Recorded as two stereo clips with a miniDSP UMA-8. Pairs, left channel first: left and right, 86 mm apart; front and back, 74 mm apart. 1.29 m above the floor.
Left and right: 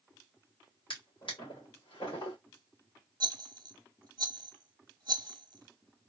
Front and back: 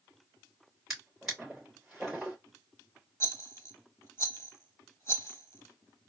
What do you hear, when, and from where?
0.9 s a drawer: 90° left, 2.5 m
3.2 s a rattle: 50° right, 0.7 m